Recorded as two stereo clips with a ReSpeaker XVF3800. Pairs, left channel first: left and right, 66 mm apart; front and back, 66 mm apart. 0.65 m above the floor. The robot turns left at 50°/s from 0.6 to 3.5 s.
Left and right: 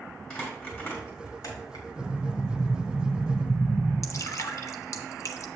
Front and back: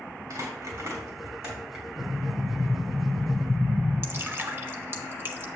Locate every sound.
0.3 s crumpling: 165° left, 4 m; by 1.9 s 105° left, 4 m
2.0 s an explosion: 165° left, 4.5 m; by 3.9 s 85° left, 4.5 m
4.0 s dripping: 125° left, 0.9 m